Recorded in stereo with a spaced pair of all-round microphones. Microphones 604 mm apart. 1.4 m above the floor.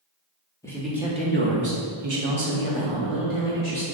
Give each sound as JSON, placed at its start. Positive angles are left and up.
{"t": 0.6, "sound": "a man speaking", "side_deg": 5, "distance_m": 0.8}